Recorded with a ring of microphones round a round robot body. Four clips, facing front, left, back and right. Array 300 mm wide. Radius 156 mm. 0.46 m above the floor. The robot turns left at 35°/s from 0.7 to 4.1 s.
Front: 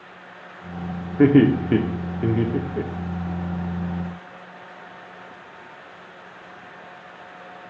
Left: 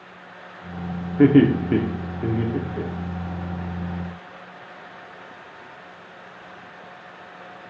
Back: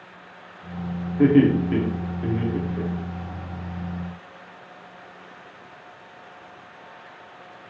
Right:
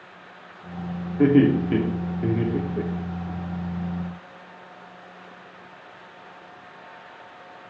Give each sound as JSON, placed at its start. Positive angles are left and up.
{"t": 1.2, "sound": "laughter", "azimuth_deg": 40, "distance_m": 1.1}